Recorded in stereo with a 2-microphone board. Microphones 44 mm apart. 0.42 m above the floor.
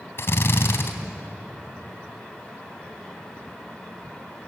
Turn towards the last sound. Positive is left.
turn(degrees=55)  # may be behind; listen again after turning